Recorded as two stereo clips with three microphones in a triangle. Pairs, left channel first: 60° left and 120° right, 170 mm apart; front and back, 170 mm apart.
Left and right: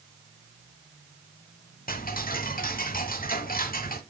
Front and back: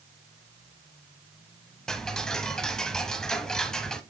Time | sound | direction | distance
1.9 | ticking | 85° left | 0.9 m